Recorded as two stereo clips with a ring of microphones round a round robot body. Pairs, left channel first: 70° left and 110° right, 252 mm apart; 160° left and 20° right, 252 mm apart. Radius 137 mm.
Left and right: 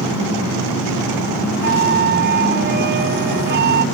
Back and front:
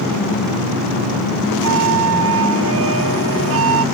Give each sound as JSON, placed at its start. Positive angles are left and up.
{"t": 1.6, "sound": "a flute", "azimuth_deg": -60}